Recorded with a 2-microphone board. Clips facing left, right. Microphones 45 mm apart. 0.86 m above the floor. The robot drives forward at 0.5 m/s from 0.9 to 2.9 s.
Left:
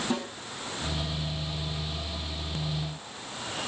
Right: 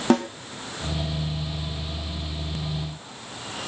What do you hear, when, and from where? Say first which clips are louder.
0.1 s a snare drum: right 14 dB; 80° right, 0.8 m